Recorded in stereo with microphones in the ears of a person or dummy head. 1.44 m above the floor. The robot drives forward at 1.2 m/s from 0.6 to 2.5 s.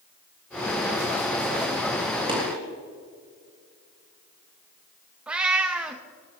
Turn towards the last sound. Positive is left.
turn(degrees=-10)  # may be behind; listen again after turning